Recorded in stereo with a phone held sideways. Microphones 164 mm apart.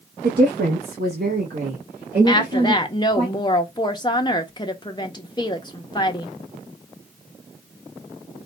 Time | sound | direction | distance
0.2 | a woman speaking | 80° right | 0.9 m
2.3 | a woman speaking | 25° left (ahead or behind) | 0.6 m